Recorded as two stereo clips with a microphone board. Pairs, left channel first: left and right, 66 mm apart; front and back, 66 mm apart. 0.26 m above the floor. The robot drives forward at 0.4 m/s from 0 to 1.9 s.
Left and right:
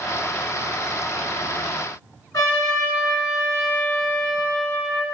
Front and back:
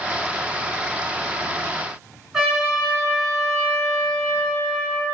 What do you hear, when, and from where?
2.3 s a trumpet: 100° left, 2 m